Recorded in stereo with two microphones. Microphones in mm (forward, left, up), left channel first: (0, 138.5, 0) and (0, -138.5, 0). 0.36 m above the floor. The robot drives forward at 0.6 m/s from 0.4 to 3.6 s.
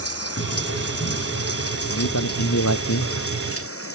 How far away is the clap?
No clap in this recording.